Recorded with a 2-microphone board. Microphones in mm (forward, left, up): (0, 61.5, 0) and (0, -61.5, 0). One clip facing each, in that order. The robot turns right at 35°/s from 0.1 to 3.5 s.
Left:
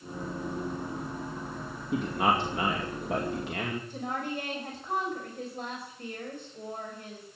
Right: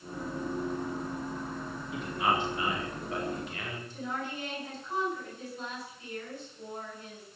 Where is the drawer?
No drawer in this recording.